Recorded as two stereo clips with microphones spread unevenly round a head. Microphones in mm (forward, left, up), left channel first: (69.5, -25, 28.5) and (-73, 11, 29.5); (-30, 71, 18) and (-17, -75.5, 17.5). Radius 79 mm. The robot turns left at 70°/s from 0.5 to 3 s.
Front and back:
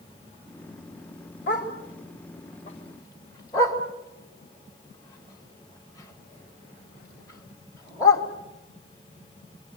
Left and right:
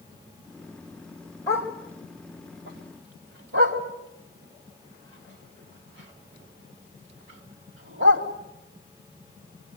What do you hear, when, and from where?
1.5 s a dog barking: 25° left, 2.5 m; by 8.2 s 85° right, 2.5 m